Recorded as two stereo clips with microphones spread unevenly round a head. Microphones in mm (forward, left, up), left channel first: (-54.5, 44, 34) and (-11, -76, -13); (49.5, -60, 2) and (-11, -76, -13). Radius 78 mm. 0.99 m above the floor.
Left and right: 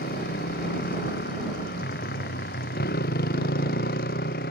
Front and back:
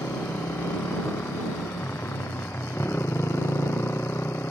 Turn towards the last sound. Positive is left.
turn(degrees=90)